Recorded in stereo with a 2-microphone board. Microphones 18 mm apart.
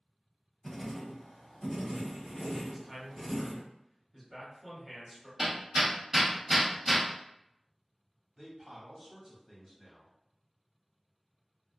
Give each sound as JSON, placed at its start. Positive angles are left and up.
{"t": 0.6, "sound": "writing", "side_deg": 10, "distance_m": 1.4}
{"t": 2.7, "sound": "a man speaking", "side_deg": -10, "distance_m": 1.5}
{"t": 5.4, "sound": "hammering", "side_deg": -25, "distance_m": 1.0}
{"t": 8.4, "sound": "a man speaking", "side_deg": -35, "distance_m": 1.1}